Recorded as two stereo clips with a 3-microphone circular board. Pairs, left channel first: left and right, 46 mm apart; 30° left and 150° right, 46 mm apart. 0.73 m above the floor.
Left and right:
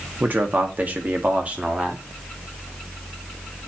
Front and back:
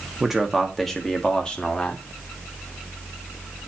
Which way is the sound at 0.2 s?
75° right.